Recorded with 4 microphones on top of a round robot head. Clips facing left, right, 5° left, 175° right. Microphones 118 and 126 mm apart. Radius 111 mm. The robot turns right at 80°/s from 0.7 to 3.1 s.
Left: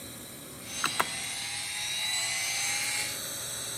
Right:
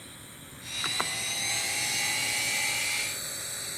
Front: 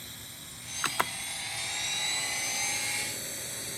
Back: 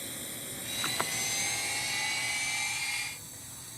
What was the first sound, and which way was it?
A drone, 150° left.